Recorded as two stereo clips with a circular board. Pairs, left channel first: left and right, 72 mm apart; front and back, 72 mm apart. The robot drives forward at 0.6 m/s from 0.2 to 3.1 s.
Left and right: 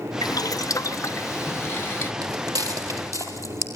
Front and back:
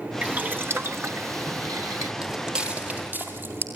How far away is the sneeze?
No sneeze in this recording.